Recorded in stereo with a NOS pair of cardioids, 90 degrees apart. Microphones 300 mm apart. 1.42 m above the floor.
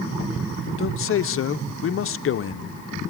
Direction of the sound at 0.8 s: 45° left.